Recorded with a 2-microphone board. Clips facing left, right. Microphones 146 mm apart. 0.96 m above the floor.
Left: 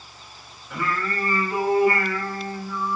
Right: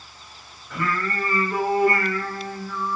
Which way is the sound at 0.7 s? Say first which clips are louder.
Right 1 dB; 10° left (ahead or behind).